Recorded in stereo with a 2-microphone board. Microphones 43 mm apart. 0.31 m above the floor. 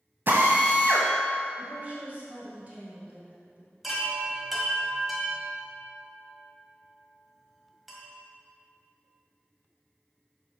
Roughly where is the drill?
Right.